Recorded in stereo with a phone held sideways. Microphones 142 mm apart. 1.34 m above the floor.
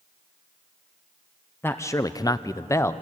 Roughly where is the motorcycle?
No motorcycle in this recording.